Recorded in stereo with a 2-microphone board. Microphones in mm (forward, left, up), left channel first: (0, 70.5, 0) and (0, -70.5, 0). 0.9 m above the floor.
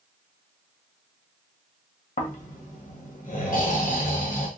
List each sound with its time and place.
2.2 s snoring: 70° left (ahead or behind), 0.9 m